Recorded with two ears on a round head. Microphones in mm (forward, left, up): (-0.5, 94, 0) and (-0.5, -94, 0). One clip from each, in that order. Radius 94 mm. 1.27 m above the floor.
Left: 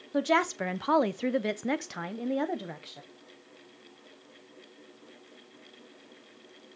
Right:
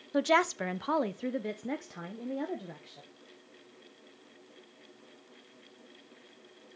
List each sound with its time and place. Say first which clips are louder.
0.1 s a woman speaking: even; 15° right (ahead or behind), 0.7 m; by 3.0 s 50° left (ahead or behind), 1.2 m